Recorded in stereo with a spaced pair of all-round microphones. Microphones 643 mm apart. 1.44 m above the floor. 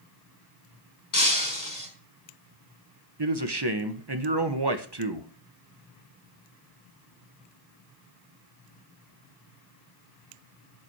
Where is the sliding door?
I don't hear a sliding door.